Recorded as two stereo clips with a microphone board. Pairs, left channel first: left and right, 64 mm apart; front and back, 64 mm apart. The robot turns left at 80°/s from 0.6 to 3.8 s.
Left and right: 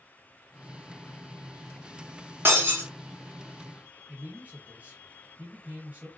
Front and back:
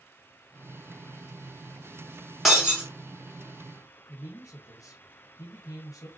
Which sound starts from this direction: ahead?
A man speaking, at 4.1 s.